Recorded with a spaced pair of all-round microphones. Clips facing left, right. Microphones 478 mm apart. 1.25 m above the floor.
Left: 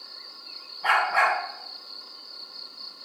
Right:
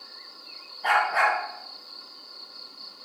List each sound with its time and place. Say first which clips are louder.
0.8 s a dog barking: even; 25° left (ahead or behind), 3.5 m